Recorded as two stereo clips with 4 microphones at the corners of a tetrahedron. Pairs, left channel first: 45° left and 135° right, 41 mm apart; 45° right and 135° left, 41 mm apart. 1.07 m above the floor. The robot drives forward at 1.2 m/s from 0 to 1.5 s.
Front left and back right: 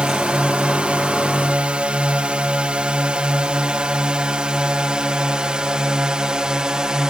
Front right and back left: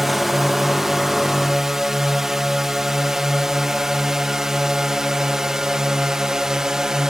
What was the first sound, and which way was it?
A drone, 145° right.